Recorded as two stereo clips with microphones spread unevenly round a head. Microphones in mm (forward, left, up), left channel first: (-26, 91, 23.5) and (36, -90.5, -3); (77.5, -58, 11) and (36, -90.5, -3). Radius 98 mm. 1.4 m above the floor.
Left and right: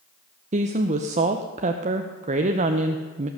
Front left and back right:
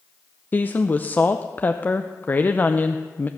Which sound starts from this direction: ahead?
A woman speaking, at 0.5 s.